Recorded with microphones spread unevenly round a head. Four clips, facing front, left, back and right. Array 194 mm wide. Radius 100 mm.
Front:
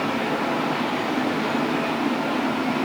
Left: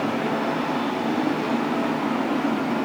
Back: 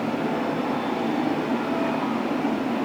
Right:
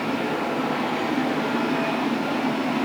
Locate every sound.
Only background noise.